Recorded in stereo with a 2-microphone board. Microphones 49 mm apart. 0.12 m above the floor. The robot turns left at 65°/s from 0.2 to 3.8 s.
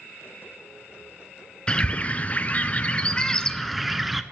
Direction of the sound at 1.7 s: 135° left.